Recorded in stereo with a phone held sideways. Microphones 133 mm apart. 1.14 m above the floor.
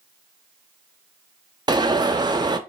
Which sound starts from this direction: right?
An alarm, at 1.7 s.